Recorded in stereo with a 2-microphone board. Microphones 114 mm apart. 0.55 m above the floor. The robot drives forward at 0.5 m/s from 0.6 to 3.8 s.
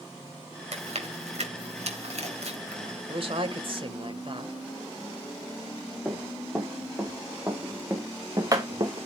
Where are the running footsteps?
15° right (ahead or behind), 6 m; by 9.1 s 40° right (ahead or behind), 3 m.